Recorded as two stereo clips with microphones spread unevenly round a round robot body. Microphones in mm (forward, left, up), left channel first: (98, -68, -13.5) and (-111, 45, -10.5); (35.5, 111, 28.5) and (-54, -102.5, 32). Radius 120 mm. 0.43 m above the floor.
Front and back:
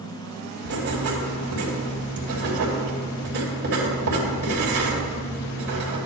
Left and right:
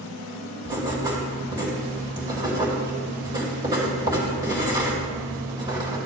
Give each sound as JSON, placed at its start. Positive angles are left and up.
{"t": 0.7, "sound": "writing", "azimuth_deg": 175, "distance_m": 3.0}